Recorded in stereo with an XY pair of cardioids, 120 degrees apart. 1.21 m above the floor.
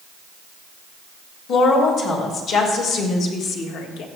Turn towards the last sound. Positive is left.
turn(degrees=80)